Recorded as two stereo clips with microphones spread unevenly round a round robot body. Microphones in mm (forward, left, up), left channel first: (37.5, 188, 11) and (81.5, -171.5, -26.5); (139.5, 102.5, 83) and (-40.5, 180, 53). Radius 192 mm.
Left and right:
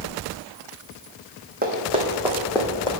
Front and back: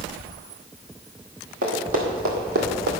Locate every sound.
1.6 s running footsteps: 150° right, 1.2 m; by 2.9 s 170° left, 1.3 m